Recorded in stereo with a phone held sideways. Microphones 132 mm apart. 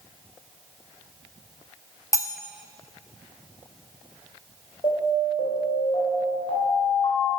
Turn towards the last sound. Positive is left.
turn(degrees=45)  # may be behind; listen again after turning